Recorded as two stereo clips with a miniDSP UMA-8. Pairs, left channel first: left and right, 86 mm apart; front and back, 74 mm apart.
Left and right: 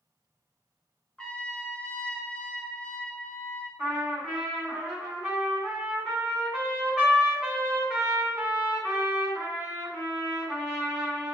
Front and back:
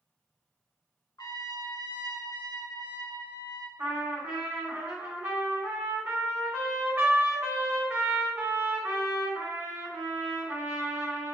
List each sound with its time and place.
1.2 s a trumpet: 10° left, 0.6 m
3.8 s a trumpet: 165° right, 1.5 m